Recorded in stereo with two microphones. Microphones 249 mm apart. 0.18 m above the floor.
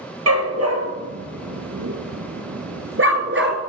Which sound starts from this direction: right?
A dog barking, at 0.3 s.